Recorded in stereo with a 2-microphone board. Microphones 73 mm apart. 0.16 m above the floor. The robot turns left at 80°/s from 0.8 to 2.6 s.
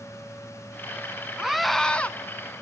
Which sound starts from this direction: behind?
A scream, at 1.4 s.